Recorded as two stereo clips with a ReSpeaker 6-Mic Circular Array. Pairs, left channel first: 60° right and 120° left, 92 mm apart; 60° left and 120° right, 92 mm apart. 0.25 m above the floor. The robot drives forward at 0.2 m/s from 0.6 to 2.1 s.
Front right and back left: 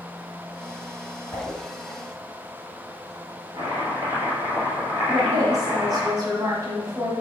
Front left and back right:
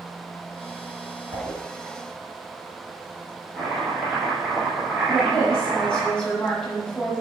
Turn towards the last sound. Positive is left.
turn(degrees=135)